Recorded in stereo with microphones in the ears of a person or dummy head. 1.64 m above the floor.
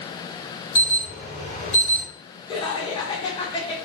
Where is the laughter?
25° left (ahead or behind), 0.9 m.